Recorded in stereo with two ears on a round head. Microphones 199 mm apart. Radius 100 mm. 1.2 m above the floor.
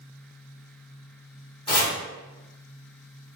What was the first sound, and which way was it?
Chopping, 25° left (ahead or behind).